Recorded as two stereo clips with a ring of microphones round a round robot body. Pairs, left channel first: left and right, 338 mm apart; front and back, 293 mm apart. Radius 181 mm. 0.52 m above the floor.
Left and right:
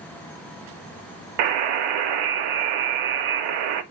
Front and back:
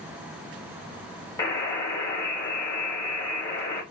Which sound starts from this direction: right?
A buzzer, at 1.4 s.